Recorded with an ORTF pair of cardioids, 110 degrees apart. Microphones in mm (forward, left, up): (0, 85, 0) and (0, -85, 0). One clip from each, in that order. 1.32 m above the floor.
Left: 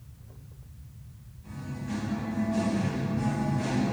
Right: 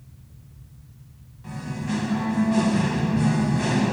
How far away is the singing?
About 0.8 m.